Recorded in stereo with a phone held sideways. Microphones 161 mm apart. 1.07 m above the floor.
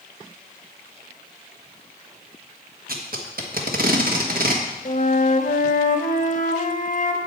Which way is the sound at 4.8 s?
55° left (ahead or behind).